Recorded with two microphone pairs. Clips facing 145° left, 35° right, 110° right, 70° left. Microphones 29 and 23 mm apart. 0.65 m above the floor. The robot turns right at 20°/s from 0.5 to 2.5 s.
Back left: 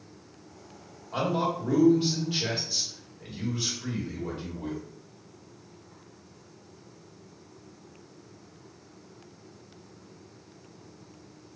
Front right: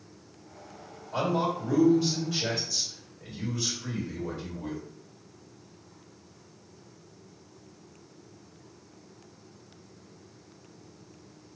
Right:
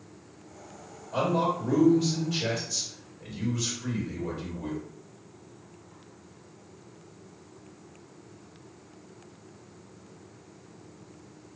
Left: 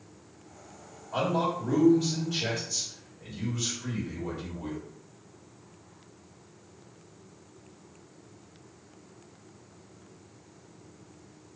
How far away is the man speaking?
About 1.9 m.